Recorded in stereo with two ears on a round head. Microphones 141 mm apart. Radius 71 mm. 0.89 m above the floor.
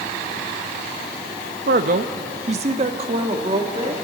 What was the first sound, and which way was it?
A man speaking, 55° right (ahead or behind).